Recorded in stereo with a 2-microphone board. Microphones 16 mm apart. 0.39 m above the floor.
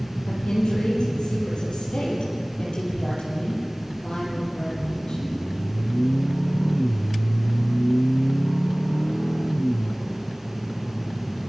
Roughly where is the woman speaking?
Left.